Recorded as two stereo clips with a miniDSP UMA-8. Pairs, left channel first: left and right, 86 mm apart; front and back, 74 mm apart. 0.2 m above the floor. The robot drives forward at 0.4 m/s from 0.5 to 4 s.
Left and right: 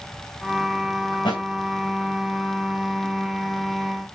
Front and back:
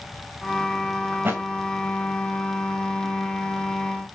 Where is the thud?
115° left, 3.5 m; by 1.4 s 120° left, 3.5 m.